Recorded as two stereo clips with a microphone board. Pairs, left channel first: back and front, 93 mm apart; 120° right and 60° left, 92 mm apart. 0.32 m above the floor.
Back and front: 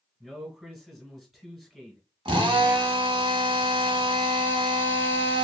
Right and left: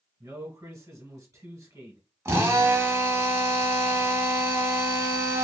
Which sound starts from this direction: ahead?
A drill, at 2.2 s.